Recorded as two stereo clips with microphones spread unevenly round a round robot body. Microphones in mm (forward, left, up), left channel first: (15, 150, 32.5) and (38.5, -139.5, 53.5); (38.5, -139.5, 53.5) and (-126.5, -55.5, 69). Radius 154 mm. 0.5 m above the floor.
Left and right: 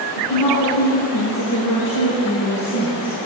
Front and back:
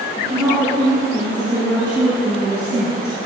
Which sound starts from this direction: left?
A woman speaking, at 0.2 s.